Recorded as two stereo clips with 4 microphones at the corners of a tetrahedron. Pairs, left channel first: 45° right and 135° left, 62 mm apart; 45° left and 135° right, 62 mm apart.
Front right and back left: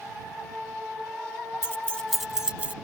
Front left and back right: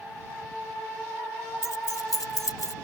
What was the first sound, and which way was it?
Keys jangling, 5° left.